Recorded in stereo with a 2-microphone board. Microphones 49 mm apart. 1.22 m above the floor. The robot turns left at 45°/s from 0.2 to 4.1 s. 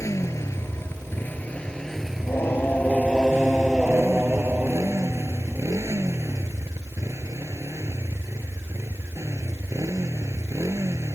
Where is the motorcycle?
85° left; by 11.2 s 90° right.